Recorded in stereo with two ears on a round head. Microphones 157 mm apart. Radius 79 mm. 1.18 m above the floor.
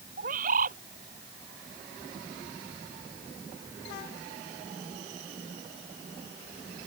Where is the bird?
45° right (ahead or behind).